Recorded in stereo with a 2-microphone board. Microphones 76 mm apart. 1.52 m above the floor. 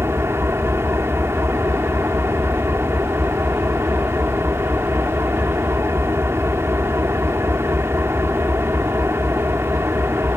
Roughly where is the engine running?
Right.